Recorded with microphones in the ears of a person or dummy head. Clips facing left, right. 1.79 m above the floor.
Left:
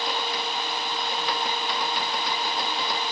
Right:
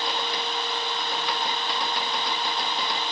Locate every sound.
Only background noise.